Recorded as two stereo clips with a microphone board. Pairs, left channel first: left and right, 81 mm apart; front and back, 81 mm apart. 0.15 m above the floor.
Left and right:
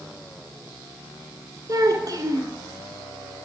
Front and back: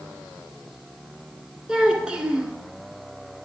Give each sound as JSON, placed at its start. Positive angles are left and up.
{"t": 1.7, "sound": "a child speaking", "azimuth_deg": -105, "distance_m": 1.1}